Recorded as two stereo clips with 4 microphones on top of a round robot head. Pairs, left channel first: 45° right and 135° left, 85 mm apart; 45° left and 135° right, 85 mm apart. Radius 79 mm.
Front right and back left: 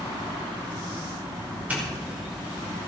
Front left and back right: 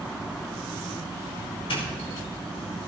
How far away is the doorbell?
About 5 m.